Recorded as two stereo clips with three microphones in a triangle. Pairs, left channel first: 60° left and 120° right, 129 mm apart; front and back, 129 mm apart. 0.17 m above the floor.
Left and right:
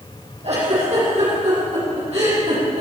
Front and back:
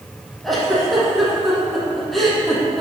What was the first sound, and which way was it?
A giggle, 90° right.